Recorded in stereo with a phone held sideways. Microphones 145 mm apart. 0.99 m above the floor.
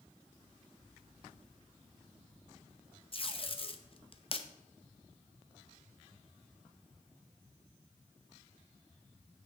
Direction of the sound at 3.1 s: 40° left (ahead or behind).